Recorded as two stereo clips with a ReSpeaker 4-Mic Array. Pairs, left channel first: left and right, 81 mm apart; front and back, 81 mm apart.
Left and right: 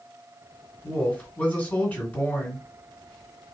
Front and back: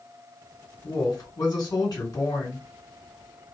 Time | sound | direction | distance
0.8 | a woman speaking | 25° left | 2 m